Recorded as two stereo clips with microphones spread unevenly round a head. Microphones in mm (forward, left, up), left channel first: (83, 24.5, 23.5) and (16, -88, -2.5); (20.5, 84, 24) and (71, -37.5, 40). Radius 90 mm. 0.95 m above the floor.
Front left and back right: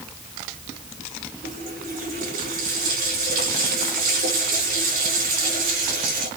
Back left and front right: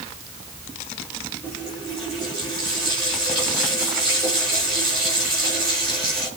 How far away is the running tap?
About 8 m.